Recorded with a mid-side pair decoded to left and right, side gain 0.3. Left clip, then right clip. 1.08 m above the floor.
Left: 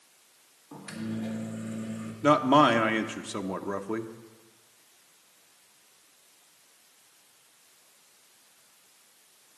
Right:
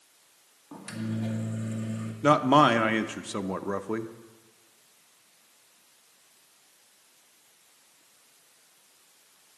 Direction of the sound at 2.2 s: 25° right.